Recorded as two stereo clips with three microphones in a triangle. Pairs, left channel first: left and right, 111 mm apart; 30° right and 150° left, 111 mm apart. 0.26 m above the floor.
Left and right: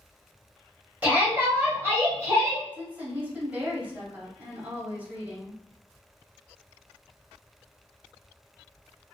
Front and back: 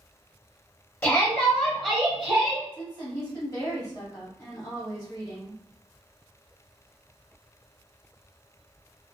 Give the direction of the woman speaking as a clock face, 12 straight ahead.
1 o'clock.